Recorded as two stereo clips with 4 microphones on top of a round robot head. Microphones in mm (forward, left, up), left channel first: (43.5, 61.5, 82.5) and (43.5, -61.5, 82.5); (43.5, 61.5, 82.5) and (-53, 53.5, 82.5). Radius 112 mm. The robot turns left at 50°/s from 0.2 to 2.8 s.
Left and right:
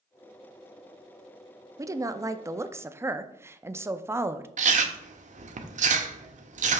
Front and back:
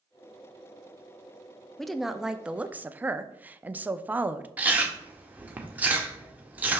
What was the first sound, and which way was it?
A woman speaking, 75° right.